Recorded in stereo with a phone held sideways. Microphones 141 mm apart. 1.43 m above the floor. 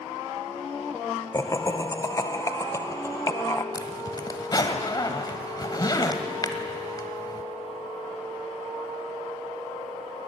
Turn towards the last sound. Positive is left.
turn(degrees=30)  # may be behind; listen again after turning